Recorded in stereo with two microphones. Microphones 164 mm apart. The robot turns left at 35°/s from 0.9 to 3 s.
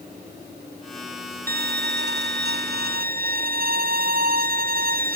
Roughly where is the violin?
Ahead right.